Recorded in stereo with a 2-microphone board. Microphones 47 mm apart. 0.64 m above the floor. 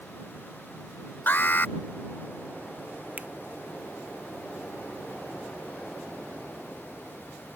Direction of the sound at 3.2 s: 35° right (ahead or behind).